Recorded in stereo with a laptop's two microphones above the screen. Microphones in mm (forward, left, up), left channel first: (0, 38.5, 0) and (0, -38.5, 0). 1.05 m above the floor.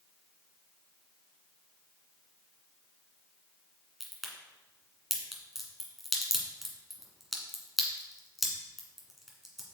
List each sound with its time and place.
4.0 s a crack: 5° right (ahead or behind), 1.9 m